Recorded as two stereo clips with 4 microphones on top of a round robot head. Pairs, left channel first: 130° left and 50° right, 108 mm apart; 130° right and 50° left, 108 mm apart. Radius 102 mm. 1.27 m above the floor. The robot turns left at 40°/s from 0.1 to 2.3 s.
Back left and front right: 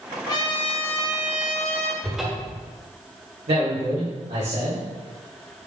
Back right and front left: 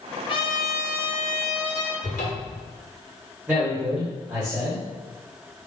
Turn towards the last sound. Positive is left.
turn(degrees=-30)